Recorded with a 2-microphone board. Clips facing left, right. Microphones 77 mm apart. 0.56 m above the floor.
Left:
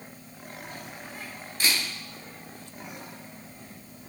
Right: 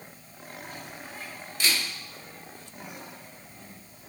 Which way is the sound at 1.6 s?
35° left (ahead or behind).